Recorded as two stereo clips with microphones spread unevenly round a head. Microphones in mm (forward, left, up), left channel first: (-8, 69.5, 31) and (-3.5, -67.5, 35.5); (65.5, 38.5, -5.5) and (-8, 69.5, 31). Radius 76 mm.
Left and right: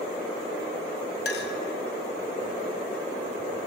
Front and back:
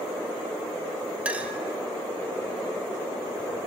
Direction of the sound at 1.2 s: 95° left.